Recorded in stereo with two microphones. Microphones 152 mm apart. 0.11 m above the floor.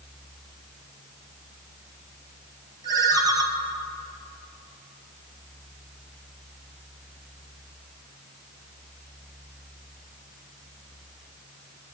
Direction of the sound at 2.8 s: 25° right (ahead or behind).